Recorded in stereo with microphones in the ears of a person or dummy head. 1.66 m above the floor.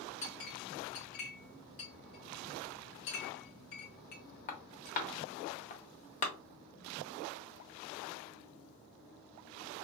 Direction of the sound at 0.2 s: 40° left (ahead or behind).